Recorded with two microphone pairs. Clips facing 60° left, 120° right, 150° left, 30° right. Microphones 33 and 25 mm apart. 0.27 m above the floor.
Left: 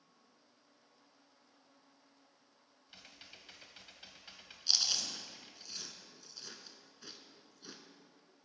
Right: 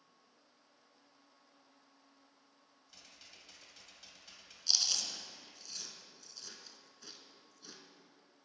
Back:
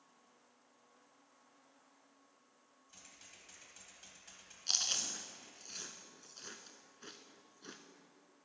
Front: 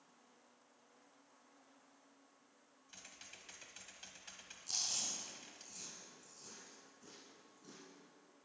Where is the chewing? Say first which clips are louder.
Left 1 dB, back 5 dB; 135° left, 0.9 m.